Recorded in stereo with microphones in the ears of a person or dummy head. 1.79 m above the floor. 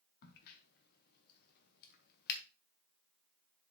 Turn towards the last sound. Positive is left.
turn(degrees=55)  # may be behind; listen again after turning